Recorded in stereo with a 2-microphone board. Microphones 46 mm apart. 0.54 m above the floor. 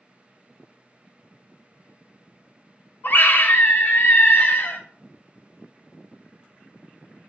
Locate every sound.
3.0 s a scream: 45° left (ahead or behind), 0.8 m